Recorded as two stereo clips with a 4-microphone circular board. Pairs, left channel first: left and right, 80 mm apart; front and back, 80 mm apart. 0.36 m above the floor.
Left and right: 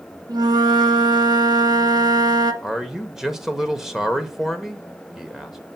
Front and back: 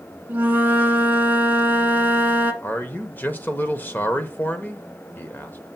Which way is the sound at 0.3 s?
115° right.